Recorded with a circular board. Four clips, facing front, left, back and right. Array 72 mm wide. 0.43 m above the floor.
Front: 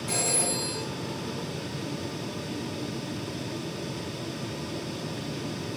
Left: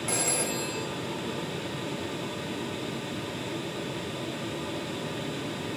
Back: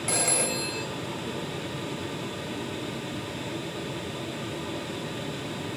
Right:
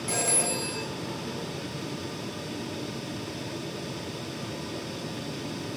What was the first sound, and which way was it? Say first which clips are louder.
A phone ringing: right 1 dB, back 2 dB; 175° left.